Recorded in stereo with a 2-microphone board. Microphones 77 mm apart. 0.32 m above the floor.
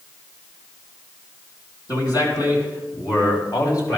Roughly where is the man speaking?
Left.